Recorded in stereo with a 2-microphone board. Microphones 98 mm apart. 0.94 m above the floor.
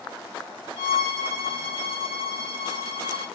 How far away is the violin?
About 1.8 m.